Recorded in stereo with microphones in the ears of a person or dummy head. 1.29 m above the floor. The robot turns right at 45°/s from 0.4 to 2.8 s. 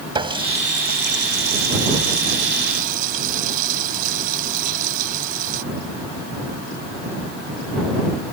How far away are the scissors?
I don't hear scissors.